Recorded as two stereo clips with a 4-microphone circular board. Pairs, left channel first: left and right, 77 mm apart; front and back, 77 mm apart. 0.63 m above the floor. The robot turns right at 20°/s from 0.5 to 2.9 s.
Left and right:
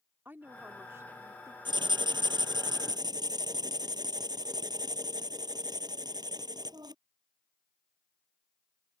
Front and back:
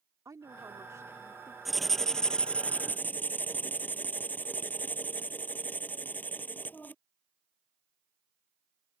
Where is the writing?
90° right; by 7.0 s 65° right.